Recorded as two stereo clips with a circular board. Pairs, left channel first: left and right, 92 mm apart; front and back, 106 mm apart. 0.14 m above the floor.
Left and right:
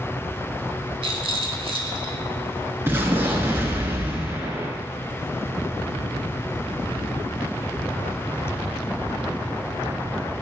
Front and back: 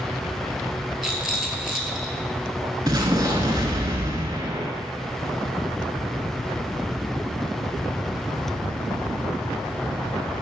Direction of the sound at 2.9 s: 145° right.